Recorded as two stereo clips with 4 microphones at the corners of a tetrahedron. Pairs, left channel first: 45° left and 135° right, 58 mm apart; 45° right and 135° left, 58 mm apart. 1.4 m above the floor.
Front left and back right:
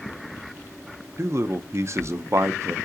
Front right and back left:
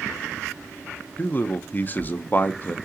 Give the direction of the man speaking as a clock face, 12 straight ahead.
3 o'clock.